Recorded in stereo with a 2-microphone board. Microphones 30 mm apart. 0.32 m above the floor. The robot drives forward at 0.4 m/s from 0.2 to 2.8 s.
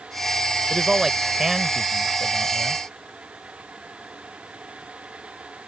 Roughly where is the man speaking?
Centre.